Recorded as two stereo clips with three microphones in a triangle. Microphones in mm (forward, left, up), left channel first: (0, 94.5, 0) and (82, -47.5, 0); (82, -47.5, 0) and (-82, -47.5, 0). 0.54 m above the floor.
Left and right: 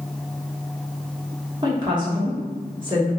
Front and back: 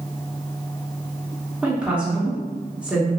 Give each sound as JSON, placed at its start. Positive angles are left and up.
{"t": 1.6, "sound": "a woman speaking", "azimuth_deg": -100, "distance_m": 1.4}